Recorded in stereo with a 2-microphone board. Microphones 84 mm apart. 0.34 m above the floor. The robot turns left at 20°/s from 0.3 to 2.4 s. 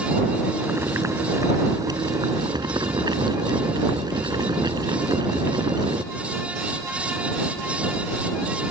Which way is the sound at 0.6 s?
30° right.